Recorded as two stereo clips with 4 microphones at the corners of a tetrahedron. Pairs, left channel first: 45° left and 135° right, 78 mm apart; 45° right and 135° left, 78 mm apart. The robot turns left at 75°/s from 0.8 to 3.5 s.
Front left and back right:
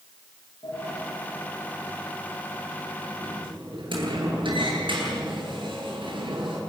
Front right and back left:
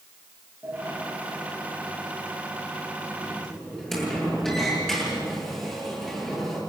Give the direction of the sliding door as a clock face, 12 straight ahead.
10 o'clock.